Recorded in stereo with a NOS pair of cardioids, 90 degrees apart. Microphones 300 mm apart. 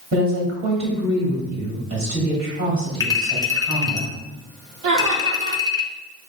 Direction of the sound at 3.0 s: 10° left.